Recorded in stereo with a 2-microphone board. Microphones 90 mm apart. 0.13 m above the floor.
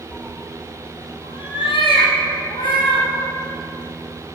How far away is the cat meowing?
About 0.7 m.